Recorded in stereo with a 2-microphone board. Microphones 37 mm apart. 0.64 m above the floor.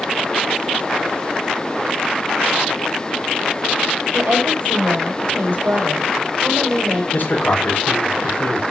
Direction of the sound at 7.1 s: 55° left (ahead or behind).